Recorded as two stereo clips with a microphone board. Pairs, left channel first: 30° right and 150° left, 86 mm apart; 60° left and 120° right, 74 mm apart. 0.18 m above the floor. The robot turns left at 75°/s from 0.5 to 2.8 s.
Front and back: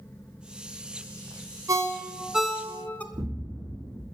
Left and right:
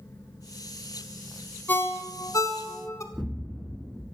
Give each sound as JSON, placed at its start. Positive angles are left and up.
{"t": 1.7, "sound": "a ringtone", "azimuth_deg": 120, "distance_m": 0.8}
{"t": 3.1, "sound": "an explosion", "azimuth_deg": 150, "distance_m": 4.0}